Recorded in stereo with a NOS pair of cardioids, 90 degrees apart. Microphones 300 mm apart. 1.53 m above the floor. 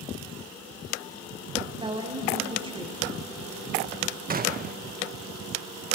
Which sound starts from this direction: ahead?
A woman speaking, at 1.6 s.